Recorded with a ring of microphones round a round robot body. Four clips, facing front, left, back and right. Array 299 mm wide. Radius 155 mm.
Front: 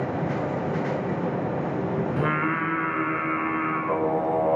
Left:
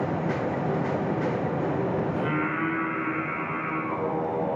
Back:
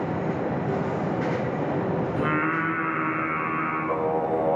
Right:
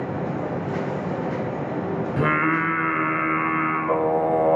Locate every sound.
2.2 s singing: 90° right, 1.2 m